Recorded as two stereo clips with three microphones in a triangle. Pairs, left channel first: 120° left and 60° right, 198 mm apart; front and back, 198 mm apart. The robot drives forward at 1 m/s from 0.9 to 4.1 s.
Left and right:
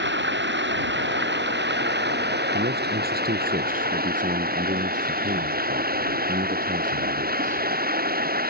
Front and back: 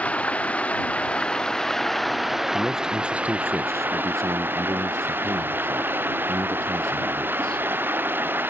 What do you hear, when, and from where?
0.0 s running water: 85° right; by 8.5 s 100° right
2.5 s a man speaking: 90° right; by 7.6 s 110° right